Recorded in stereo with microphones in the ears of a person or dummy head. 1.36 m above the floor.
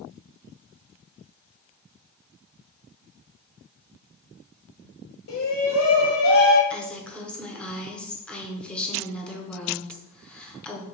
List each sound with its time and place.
5.3 s a shout: 75° left (ahead or behind), 1.3 m; by 6.6 s 65° left (ahead or behind), 2 m
6.7 s a woman speaking: centre (ahead or behind), 0.9 m